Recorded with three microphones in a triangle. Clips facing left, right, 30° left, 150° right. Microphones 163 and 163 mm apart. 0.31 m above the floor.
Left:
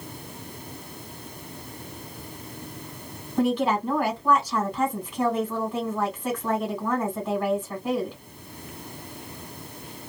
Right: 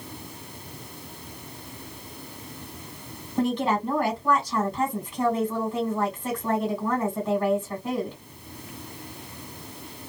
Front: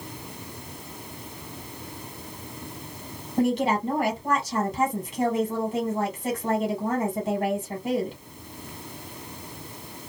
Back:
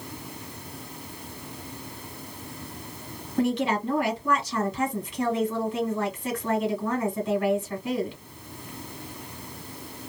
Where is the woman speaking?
5° left, 1.7 m.